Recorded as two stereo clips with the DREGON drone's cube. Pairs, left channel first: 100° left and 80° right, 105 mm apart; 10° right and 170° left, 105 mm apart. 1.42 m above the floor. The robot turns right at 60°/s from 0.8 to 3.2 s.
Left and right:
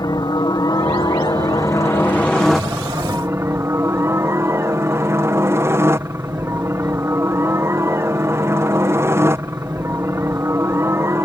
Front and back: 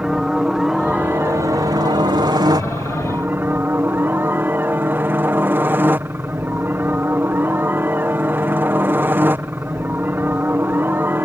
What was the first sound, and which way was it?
A helicopter, 85° left.